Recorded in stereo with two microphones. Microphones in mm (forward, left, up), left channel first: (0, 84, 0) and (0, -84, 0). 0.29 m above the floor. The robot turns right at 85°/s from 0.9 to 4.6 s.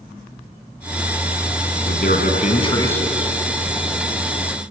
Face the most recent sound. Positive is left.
turn(degrees=-50)